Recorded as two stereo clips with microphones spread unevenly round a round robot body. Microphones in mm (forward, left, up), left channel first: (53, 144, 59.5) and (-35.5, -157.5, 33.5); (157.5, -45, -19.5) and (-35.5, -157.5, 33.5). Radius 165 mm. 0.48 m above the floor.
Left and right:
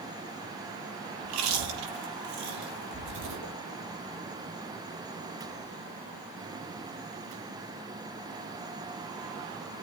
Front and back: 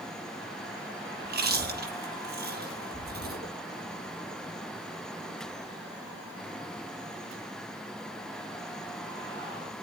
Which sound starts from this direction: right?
Chewing, at 1.2 s.